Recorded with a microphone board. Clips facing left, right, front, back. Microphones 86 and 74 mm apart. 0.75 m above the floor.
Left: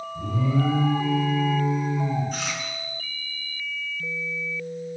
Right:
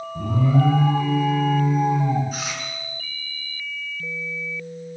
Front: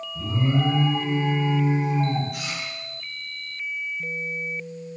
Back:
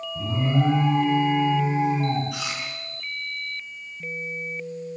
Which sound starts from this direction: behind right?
An alarm, at 0.1 s.